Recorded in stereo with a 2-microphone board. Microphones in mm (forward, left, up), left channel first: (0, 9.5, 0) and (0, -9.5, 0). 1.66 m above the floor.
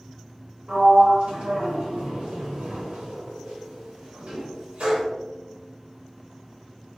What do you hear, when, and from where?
0.7 s a sliding door: 70° right (ahead or behind), 1.6 m